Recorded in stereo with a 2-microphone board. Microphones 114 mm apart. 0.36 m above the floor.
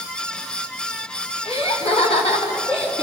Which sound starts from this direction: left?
Laughter, at 1.4 s.